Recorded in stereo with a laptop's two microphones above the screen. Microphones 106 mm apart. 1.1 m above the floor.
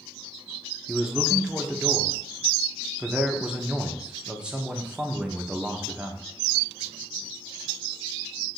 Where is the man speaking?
10° right (ahead or behind), 0.8 m.